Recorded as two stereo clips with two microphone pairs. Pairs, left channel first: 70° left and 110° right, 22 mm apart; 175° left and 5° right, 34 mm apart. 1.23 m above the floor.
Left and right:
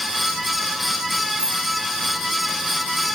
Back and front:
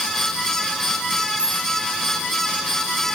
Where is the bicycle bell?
65° right, 9.5 m.